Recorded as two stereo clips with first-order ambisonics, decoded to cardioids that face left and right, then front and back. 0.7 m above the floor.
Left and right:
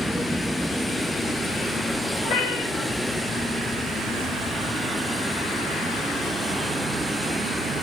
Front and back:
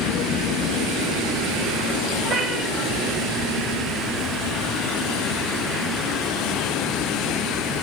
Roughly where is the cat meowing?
Behind left.